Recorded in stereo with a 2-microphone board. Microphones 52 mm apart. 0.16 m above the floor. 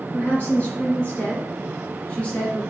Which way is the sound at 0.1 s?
30° left (ahead or behind).